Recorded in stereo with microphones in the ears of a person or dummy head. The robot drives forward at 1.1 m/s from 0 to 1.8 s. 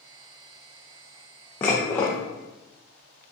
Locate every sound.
1.6 s dishes clattering: 10° left (ahead or behind), 0.8 m